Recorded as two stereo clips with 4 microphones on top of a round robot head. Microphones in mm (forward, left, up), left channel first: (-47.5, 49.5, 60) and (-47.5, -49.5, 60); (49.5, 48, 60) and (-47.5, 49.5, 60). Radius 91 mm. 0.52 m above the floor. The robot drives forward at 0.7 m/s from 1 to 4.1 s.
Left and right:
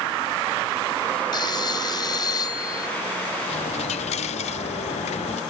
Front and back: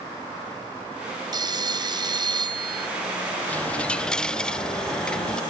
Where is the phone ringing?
135° left; by 2.9 s 140° left.